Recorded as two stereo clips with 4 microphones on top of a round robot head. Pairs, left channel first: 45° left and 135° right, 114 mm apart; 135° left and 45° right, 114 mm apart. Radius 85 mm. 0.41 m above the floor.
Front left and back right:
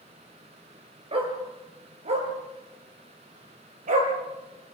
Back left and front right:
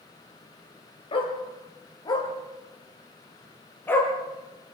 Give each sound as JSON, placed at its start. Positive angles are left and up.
{"t": 1.1, "sound": "a dog barking", "azimuth_deg": 180, "distance_m": 4.5}